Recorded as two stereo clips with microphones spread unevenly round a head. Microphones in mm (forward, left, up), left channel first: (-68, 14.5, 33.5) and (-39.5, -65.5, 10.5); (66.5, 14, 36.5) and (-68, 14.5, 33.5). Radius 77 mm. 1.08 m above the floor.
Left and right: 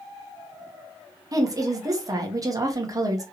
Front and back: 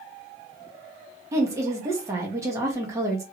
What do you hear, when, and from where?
1.3 s a woman speaking: 110° right, 1.4 m